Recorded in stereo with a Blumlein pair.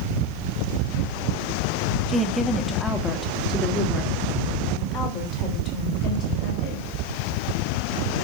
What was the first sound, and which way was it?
A woman speaking, 5° right.